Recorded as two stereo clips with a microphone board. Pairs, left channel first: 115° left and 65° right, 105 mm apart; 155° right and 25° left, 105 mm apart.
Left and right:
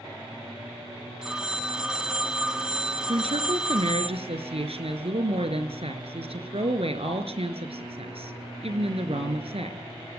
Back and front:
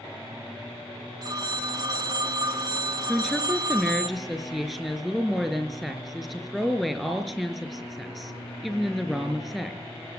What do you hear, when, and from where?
1.2 s a phone ringing: 10° left, 1.3 m
3.1 s a woman speaking: 70° right, 4 m